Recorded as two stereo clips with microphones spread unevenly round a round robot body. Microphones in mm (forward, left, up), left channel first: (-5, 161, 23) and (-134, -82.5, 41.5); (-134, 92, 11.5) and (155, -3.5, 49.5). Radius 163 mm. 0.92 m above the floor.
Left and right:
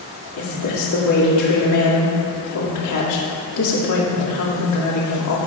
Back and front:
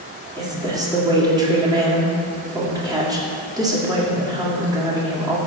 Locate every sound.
0.4 s a woman speaking: 60° left, 2 m